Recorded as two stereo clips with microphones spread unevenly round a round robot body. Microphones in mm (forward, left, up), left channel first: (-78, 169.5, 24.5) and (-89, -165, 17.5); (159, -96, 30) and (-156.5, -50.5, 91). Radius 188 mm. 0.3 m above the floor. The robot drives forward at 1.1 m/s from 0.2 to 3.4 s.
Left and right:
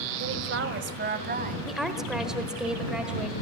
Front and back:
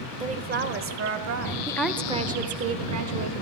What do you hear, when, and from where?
0.2 s a woman speaking: 110° right, 1.3 m; by 1.6 s 155° right, 2 m
1.7 s a woman speaking: 5° right, 1.2 m; by 3.3 s straight behind, 1.8 m